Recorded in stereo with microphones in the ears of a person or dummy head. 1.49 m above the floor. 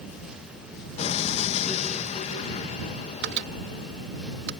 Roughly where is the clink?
I don't hear a clink.